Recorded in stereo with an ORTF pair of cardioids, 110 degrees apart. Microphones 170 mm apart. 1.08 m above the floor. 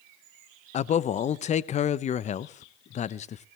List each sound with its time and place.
0.7 s a man speaking: 45° left, 0.6 m